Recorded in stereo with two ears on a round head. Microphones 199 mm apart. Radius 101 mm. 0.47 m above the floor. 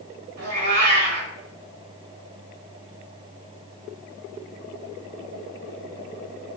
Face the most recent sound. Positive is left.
turn(degrees=-75)  # may be behind; listen again after turning